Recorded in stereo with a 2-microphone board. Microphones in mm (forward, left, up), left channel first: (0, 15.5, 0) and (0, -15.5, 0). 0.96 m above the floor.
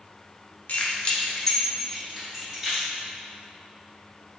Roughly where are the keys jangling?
Left.